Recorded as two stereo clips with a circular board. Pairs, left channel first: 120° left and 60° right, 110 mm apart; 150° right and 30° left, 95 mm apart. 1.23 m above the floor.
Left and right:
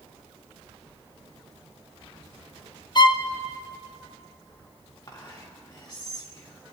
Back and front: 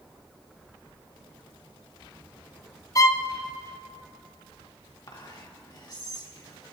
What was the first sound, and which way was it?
A violin, 160° left.